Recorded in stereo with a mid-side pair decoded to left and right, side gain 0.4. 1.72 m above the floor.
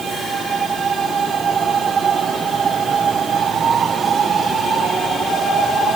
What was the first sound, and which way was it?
Only background noise.